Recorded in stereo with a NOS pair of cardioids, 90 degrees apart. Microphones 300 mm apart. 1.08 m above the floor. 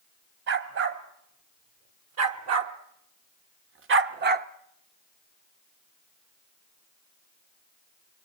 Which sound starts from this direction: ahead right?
A dog barking, at 0.5 s.